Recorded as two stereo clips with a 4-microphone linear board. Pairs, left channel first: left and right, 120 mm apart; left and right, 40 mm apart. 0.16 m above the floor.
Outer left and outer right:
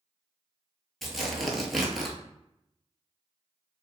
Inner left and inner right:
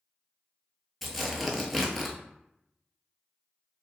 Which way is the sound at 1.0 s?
Centre (ahead or behind).